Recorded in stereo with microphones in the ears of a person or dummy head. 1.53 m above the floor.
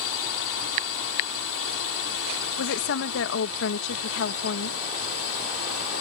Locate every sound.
0.0 s a drone: 75° left (ahead or behind)
2.6 s a woman speaking: 65° left (ahead or behind)